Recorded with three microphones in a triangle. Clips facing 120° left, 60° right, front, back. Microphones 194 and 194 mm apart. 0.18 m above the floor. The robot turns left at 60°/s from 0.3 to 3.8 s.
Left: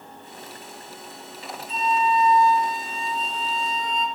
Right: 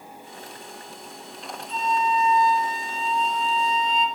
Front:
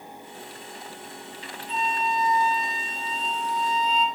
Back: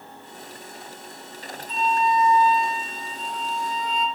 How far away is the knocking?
No knocking in this recording.